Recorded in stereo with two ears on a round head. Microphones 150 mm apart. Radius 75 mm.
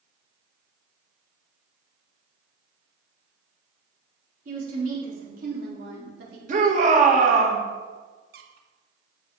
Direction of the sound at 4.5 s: 50° right (ahead or behind).